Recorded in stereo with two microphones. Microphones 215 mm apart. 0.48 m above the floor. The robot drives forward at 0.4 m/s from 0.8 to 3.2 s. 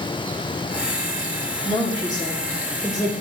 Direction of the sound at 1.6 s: 20° left (ahead or behind).